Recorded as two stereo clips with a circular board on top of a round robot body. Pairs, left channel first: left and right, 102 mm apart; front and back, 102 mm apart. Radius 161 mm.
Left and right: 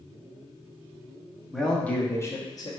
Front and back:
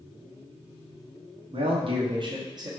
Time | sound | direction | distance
1.5 | a man speaking | straight behind | 1.0 m